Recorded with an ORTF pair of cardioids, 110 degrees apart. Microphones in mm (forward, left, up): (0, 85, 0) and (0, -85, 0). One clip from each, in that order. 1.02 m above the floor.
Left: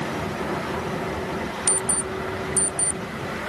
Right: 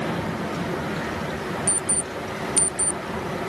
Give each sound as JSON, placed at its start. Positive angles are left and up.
{"t": 1.7, "sound": "an alarm clock", "azimuth_deg": 30}